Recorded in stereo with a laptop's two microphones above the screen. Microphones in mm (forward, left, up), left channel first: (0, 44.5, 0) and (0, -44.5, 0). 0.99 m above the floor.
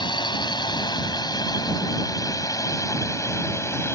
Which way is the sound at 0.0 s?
55° left (ahead or behind).